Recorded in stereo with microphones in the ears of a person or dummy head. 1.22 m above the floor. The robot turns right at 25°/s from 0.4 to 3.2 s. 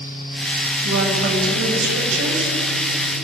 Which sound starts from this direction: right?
A woman speaking, at 0.8 s.